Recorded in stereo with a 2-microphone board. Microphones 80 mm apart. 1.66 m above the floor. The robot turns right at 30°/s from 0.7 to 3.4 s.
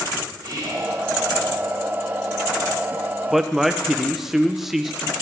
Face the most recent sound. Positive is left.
turn(degrees=-5)  # may be behind; listen again after turning